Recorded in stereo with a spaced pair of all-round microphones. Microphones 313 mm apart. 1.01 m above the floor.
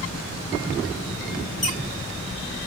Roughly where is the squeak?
Left.